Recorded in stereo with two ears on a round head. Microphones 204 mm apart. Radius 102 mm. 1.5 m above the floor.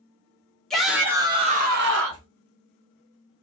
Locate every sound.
0.7 s a shout: centre (ahead or behind), 1.2 m; by 2.3 s 70° right (ahead or behind), 0.9 m